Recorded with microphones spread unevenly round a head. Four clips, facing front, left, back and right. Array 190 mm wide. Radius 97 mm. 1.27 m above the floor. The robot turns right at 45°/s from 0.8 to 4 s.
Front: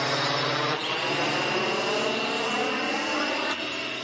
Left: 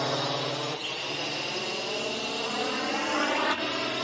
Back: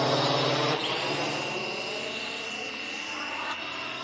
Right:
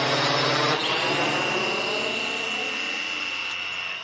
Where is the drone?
135° right; by 4.0 s 80° left.